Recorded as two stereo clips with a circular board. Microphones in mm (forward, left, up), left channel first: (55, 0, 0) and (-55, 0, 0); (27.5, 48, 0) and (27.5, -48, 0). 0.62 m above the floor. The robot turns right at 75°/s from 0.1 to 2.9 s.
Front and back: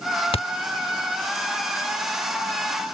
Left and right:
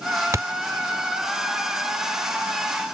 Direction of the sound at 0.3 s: 30° right.